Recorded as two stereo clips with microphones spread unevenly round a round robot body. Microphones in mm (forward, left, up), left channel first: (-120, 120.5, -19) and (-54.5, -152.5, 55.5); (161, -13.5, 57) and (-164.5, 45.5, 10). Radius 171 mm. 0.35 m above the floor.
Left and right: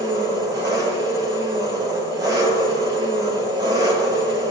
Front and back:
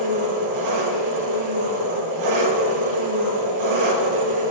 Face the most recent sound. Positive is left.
turn(degrees=-155)